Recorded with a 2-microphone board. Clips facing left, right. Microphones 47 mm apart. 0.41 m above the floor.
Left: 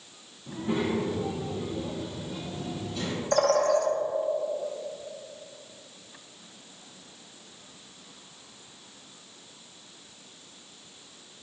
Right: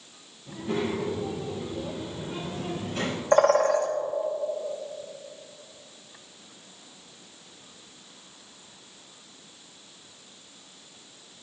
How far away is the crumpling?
I don't hear crumpling.